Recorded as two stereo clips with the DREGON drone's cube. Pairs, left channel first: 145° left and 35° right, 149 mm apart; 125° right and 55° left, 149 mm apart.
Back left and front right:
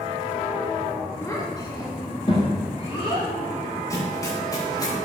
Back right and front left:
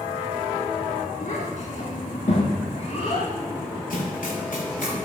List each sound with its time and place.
1.2 s a child speaking: 145° right, 2 m; by 4.9 s 175° right, 7 m
3.9 s running footsteps: 145° right, 4.5 m; by 5.0 s 150° right, 6 m